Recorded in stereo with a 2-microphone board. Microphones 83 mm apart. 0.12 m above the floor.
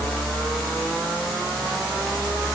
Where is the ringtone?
I don't hear a ringtone.